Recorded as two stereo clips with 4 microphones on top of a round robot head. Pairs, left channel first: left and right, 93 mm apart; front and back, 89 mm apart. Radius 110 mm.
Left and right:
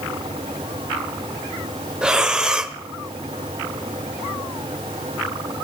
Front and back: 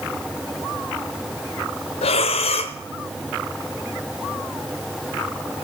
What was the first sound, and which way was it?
Breathing, 5° right.